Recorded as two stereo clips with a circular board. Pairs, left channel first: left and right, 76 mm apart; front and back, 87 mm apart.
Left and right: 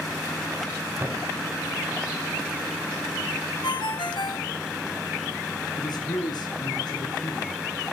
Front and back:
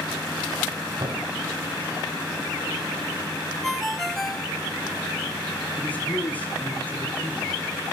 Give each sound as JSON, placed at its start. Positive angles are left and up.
{"t": 1.0, "sound": "a thud", "azimuth_deg": -155, "distance_m": 2.0}
{"t": 3.6, "sound": "a ringtone", "azimuth_deg": 85, "distance_m": 1.9}
{"t": 5.8, "sound": "a man speaking", "azimuth_deg": 70, "distance_m": 6.0}